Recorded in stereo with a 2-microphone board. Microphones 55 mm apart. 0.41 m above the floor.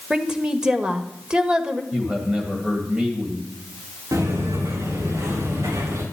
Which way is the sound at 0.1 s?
15° right (ahead or behind).